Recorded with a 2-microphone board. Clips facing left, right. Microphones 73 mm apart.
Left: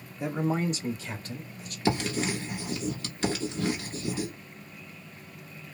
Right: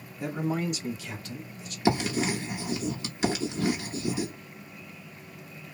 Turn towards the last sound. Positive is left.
turn(degrees=-15)  # may be behind; listen again after turning